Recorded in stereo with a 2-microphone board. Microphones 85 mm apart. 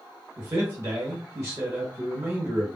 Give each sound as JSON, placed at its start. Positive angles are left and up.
{"t": 0.4, "sound": "a man speaking", "side_deg": -30, "distance_m": 1.2}